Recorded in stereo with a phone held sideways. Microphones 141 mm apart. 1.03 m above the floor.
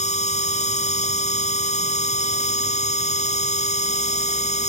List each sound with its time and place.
0.0 s a machine running: 60° left (ahead or behind)